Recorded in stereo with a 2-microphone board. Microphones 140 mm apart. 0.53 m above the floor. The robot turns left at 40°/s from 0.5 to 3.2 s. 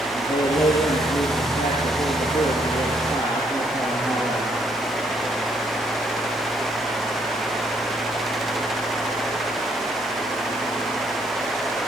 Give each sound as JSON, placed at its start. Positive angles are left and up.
{"t": 0.1, "sound": "a man speaking", "azimuth_deg": 145, "distance_m": 9.5}